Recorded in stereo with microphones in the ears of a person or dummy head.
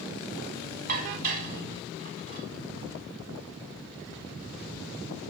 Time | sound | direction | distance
0.9 | dishes clattering | 50° right (ahead or behind) | 2 m